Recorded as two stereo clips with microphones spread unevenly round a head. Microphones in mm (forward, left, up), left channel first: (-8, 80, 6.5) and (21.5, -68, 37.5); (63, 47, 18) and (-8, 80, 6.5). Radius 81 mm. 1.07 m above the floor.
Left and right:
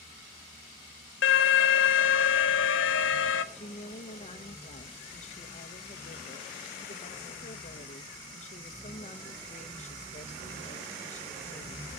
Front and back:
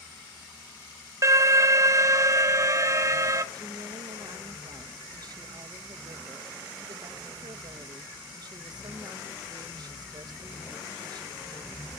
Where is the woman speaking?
135° left, 1.2 m.